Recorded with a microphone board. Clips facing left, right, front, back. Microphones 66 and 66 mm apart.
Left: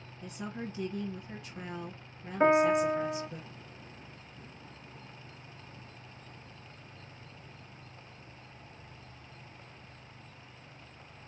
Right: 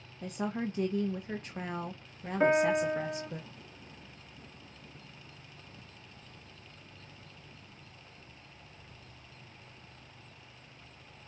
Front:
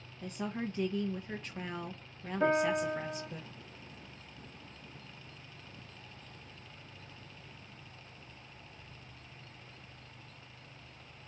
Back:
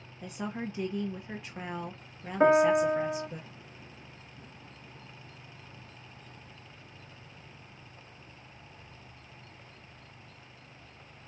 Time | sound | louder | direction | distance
0.2 | a woman speaking | right 6 dB, back 1 dB | 100° right | 1.1 m
2.4 | a piano | left 2 dB, back 7 dB | 170° left | 1.3 m